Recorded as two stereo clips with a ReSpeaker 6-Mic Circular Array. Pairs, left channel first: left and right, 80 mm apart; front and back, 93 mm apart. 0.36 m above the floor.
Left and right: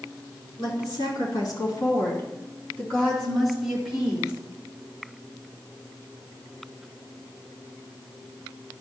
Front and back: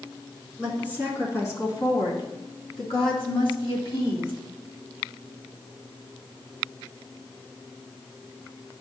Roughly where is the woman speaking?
Left.